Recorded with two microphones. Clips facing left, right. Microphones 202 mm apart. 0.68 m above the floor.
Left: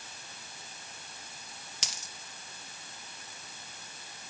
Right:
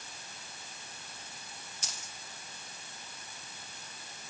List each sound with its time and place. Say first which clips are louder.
1.8 s a dropped coin: left 4 dB; 70° left (ahead or behind), 3 m